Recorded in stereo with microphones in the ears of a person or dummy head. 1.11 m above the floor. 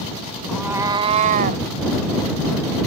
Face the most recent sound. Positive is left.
turn(degrees=-50)  # may be behind; listen again after turning